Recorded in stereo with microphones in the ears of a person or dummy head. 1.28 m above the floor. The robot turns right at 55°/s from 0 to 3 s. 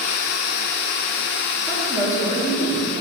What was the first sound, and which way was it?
A woman speaking, 10° right.